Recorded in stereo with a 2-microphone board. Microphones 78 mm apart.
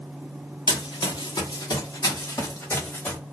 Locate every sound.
0.7 s running footsteps: 85° left, 1.2 m; by 3.2 s 25° left (ahead or behind), 1.6 m